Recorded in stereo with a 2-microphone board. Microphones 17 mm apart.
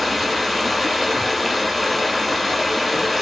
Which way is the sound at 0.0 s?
10° right (ahead or behind).